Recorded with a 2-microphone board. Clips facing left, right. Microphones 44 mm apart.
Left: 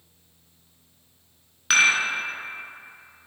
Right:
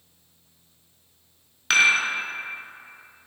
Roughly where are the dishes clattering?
Centre.